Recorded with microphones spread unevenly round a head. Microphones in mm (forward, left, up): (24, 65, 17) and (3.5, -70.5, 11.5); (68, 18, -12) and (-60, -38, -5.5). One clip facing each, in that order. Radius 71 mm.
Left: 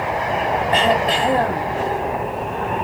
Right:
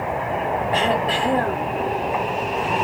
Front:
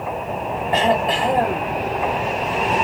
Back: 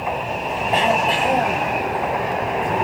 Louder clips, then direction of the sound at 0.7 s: Left 4 dB, front 1 dB; 115° left.